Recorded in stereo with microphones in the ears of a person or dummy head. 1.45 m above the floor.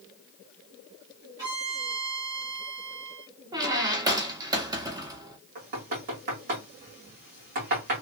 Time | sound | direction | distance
1.4 | a violin | 15° right (ahead or behind) | 1.2 m
3.5 | a squeak | 20° right (ahead or behind) | 0.6 m
5.5 | knocking | 45° right (ahead or behind) | 1.6 m